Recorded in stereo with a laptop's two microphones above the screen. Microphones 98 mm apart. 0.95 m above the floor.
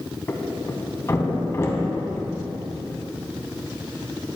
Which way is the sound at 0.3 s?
30° left (ahead or behind).